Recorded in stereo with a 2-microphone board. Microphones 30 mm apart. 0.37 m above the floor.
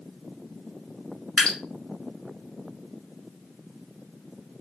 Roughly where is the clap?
I don't hear a clap.